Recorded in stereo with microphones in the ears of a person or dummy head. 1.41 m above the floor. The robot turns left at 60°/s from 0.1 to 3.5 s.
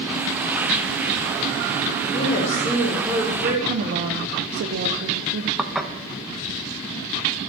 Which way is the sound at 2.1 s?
40° left.